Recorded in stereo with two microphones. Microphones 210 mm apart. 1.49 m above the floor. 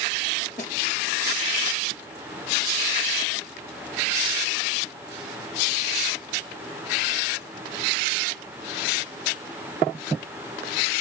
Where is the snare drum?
40° left (ahead or behind), 2.5 m.